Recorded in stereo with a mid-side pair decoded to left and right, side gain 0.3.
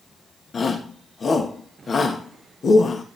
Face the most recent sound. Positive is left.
turn(degrees=60)